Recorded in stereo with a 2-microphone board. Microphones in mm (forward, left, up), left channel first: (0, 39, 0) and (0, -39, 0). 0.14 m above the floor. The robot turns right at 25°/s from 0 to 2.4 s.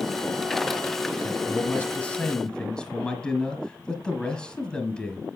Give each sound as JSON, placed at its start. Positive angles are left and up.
{"t": 1.2, "sound": "a man speaking", "side_deg": 20, "distance_m": 1.4}